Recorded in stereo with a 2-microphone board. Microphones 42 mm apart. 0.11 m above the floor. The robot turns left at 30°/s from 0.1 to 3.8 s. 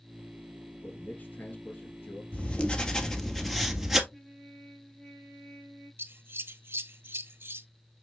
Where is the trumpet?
15° left (ahead or behind), 3 m.